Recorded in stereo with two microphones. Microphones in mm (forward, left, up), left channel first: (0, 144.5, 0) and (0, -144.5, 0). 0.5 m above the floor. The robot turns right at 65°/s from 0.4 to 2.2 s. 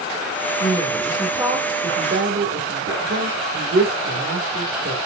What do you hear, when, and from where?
0.6 s a woman speaking: 140° left, 1.7 m; by 5.0 s 115° right, 1.7 m